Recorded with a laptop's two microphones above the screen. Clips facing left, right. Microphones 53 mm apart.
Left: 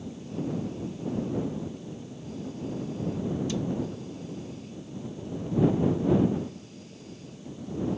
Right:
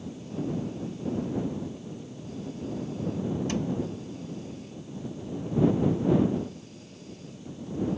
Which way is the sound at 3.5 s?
50° right (ahead or behind).